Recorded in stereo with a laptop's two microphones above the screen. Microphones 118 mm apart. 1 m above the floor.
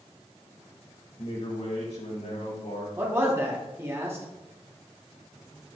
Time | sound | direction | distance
1.2 | a man speaking | 65° left (ahead or behind) | 1.7 m
3.0 | a man speaking | 20° right (ahead or behind) | 3.5 m